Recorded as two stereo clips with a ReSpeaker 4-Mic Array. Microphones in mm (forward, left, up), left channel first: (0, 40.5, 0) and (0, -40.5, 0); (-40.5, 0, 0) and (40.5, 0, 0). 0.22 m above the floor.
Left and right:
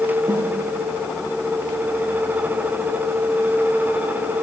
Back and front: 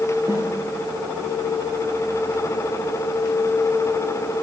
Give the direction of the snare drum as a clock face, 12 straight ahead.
2 o'clock.